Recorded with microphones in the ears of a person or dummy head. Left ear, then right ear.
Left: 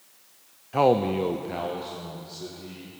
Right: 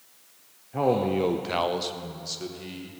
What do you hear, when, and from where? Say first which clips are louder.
0.7 s a man speaking: left 3 dB; 45° left (ahead or behind), 0.8 m; by 2.9 s 80° right, 2.5 m